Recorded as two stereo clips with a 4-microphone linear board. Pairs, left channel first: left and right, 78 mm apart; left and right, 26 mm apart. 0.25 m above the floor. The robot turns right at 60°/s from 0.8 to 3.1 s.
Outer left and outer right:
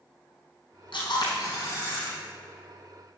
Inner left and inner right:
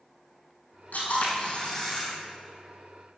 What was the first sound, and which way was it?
A camera shutter, 95° left.